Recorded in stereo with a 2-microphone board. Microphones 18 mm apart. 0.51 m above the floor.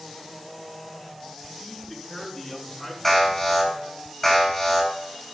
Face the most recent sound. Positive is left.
turn(degrees=5)  # may be behind; listen again after turning